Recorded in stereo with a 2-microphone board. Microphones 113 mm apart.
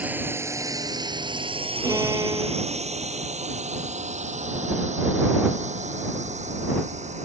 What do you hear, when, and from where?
0.0 s a drone: 15° right (ahead or behind); by 7.3 s 80° right
1.8 s a violin: 30° right (ahead or behind)